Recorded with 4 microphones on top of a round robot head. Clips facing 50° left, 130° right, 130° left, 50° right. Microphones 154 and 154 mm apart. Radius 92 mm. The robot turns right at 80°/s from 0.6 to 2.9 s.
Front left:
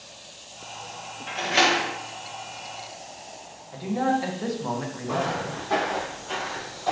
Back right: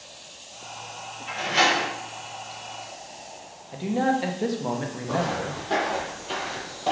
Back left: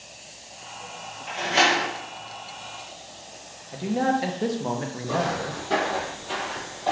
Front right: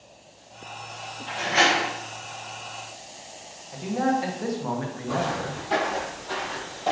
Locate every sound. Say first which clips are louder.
1.3 s a door slam: front left 1 dB, even; 55° left, 1.0 m; by 1.9 s 100° left, 1.0 m
3.7 s a man speaking: back right 1 dB, back left 1 dB; straight behind, 0.6 m
5.1 s footsteps: back right 1 dB, back left 1 dB; 150° left, 1.7 m; by 6.9 s 115° right, 1.0 m